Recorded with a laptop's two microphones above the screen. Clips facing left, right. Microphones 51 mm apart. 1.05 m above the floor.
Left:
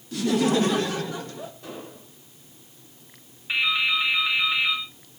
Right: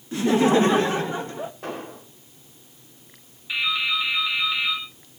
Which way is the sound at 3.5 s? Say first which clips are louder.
Left 1 dB; 25° left (ahead or behind).